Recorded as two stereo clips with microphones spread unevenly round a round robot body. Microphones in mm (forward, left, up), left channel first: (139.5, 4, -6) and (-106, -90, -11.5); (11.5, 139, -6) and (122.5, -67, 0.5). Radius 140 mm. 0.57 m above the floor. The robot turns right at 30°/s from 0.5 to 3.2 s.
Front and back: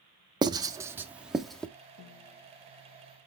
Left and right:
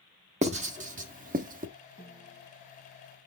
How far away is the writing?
About 0.6 m.